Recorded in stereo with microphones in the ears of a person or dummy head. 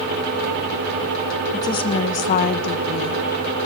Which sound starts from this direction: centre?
A woman speaking, at 1.5 s.